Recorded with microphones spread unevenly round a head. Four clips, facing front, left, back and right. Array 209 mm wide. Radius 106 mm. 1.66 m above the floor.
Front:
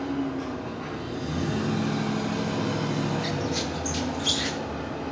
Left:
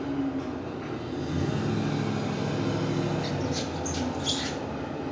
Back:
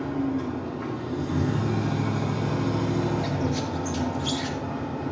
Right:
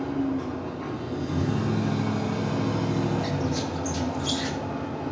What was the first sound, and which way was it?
A machine running, 145° right.